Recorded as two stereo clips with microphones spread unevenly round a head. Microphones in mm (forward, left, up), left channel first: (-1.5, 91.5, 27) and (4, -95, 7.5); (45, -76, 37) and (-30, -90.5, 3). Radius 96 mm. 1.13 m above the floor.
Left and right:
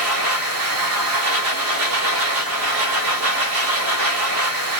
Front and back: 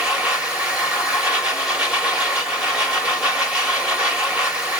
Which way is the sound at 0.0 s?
85° right.